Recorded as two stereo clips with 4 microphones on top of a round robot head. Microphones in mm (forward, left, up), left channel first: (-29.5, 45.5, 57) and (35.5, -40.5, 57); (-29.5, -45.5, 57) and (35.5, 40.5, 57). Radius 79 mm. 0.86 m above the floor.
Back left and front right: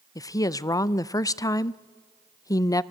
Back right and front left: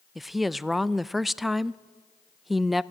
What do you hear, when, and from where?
0.1 s a woman speaking: 140° left, 0.5 m